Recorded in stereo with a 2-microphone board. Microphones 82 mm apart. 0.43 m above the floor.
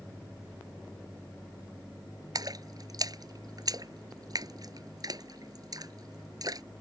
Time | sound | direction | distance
2.4 | a splash | 50° right (ahead or behind) | ?